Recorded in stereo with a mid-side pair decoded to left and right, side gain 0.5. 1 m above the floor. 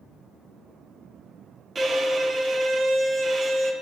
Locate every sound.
1.8 s a violin: 35° right, 3 m